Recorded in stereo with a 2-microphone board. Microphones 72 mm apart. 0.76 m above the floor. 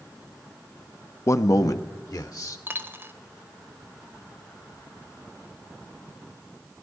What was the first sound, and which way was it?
A man speaking, 40° left (ahead or behind).